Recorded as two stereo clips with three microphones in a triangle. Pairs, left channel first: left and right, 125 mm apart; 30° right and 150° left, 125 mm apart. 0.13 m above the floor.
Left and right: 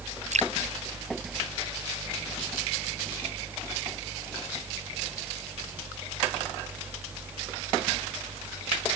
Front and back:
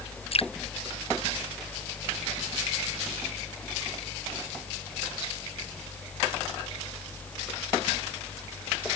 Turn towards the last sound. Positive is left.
turn(degrees=-70)